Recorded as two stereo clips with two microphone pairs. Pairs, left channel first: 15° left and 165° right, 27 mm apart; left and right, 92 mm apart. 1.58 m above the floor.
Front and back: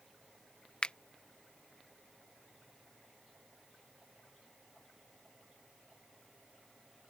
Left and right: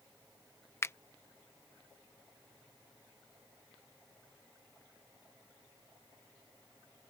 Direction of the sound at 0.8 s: 50° left.